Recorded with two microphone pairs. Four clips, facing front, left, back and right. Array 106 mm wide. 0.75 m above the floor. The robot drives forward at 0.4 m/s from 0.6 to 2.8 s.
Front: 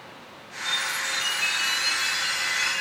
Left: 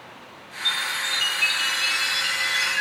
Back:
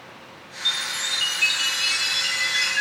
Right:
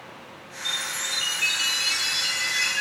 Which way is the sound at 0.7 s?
150° left.